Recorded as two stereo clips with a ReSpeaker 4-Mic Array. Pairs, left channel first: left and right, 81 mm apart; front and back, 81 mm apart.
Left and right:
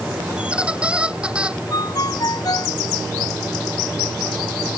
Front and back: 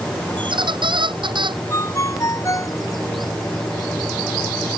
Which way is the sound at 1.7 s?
50° left.